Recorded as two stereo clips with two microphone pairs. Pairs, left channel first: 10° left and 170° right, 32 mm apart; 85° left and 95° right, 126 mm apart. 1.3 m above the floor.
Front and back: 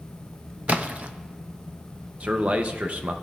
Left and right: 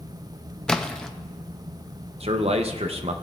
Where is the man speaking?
125° right, 0.7 m.